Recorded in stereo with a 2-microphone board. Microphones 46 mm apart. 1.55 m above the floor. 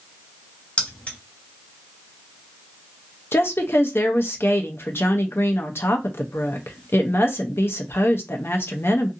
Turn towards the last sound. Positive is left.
turn(degrees=60)  # may be behind; listen again after turning